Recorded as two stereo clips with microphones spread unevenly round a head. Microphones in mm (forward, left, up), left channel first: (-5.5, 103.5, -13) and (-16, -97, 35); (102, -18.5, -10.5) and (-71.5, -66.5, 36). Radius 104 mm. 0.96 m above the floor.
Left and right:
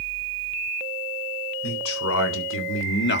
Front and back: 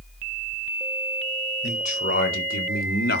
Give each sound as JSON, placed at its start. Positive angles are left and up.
{"t": 1.6, "sound": "a man speaking", "azimuth_deg": 70, "distance_m": 4.0}